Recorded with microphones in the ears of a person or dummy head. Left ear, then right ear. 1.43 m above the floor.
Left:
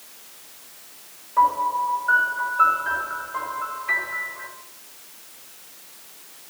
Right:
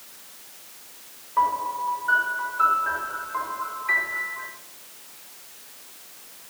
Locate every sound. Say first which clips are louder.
1.4 s a piano: left 4 dB; 5° left (ahead or behind), 5.5 m